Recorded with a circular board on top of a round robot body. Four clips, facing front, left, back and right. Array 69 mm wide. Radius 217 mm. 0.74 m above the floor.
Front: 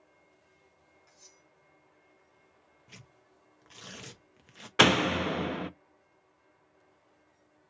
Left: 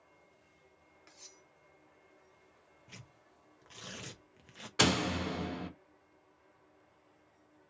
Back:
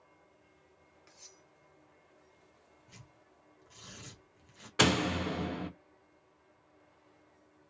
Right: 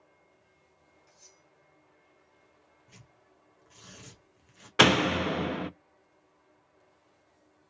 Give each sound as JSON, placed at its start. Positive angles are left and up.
{"t": 1.1, "sound": "cutlery clinking", "azimuth_deg": 120, "distance_m": 0.6}
{"t": 2.9, "sound": "tearing paper", "azimuth_deg": 35, "distance_m": 0.8}
{"t": 4.8, "sound": "a door slam", "azimuth_deg": -55, "distance_m": 0.5}